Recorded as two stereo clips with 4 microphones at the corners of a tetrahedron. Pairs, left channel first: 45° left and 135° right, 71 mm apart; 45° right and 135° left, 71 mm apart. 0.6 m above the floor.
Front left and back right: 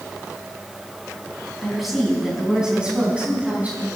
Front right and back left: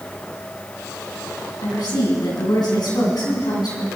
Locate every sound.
1.6 s a woman speaking: 45° right, 5 m; by 3.9 s 70° right, 5 m